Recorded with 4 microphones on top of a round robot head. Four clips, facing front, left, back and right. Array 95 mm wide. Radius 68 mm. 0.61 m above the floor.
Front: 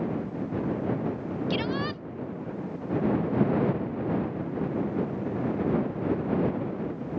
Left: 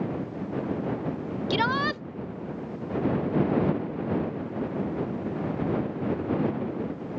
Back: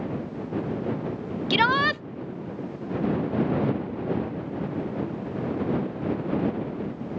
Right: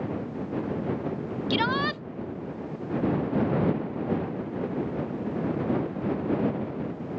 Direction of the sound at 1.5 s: 165° left.